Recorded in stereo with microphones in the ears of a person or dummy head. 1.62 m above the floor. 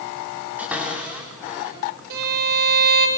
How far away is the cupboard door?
About 7.5 m.